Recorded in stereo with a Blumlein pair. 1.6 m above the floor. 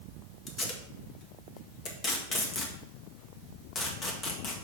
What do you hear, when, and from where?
0.5 s tape being pulled: 20° left, 1.6 m